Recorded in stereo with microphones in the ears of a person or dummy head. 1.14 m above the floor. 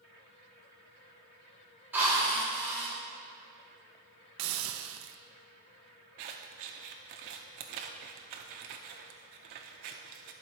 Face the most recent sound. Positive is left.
turn(degrees=-35)  # may be behind; listen again after turning